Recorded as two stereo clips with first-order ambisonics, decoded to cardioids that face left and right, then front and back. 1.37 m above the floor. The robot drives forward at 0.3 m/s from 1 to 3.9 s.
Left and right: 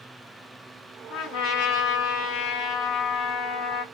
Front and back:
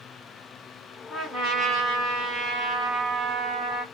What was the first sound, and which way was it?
A trumpet, 85° left.